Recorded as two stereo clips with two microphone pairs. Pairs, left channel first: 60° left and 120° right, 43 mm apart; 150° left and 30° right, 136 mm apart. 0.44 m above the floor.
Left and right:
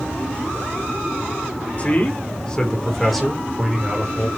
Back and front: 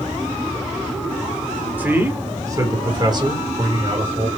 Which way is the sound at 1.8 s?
40° left.